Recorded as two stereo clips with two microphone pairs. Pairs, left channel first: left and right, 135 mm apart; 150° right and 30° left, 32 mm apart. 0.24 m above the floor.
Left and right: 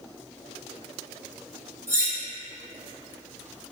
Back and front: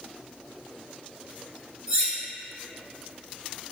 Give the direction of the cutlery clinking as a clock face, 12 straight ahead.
1 o'clock.